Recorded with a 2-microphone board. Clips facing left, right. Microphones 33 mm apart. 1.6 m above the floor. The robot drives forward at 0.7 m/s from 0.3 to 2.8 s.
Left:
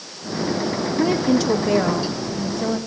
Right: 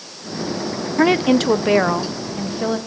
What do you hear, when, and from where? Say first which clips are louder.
1.0 s a woman speaking: right 4 dB; 65° right (ahead or behind), 0.8 m; by 2.8 s 25° right (ahead or behind), 1.7 m